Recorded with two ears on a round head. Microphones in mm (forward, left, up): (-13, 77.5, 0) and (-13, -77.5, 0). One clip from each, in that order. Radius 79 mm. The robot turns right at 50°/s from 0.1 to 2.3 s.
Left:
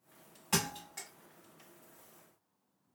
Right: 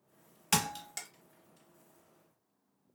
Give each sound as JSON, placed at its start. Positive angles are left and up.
{"t": 0.5, "sound": "a thud", "side_deg": -65, "distance_m": 1.0}